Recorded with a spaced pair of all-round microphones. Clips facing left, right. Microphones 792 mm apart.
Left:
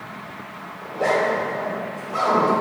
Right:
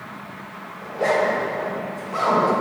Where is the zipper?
25° right (ahead or behind), 1.8 m.